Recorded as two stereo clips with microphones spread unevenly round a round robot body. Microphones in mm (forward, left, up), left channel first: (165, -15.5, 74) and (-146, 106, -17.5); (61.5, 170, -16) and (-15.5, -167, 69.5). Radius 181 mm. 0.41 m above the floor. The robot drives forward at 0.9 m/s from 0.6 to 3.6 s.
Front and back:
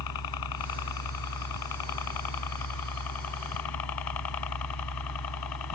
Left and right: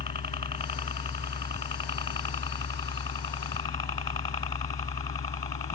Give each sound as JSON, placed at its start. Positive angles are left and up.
{"t": 0.0, "sound": "a helicopter", "azimuth_deg": 5}